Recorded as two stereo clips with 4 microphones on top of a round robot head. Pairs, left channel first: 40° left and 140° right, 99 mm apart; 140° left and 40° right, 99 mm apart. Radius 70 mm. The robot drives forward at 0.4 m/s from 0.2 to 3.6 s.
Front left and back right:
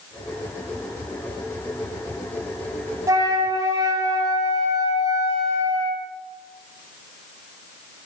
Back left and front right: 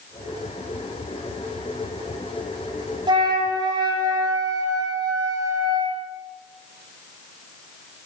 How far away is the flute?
About 2.5 m.